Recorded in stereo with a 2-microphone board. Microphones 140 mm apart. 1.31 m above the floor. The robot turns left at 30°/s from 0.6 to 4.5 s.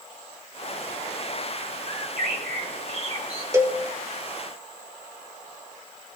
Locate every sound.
1.9 s a bird: 90° right, 1.4 m; by 3.4 s 140° right, 1.4 m
3.5 s a cowbell: 20° right (ahead or behind), 1.0 m; by 3.8 s 15° right (ahead or behind), 1.0 m